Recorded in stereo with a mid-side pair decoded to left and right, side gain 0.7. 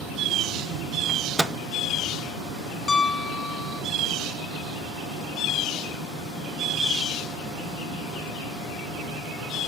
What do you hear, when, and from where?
1.1 s a microwave: 5° right, 0.6 m
2.9 s a piano: 25° left, 0.5 m